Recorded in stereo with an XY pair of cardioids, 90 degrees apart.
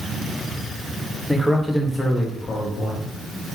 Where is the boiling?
I don't hear boiling.